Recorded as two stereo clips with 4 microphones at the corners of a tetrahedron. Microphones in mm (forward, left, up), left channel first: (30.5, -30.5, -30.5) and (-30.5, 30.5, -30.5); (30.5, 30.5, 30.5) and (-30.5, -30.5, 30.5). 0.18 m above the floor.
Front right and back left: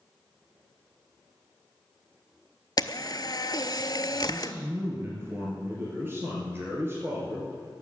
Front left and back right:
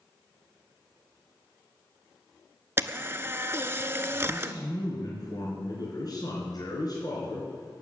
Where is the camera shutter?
75° right, 0.6 m.